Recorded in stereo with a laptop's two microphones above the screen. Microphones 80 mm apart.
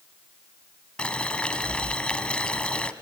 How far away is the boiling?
About 1.6 m.